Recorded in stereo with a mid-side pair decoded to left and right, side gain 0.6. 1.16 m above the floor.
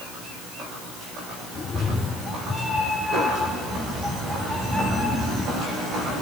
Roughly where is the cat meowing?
Ahead left.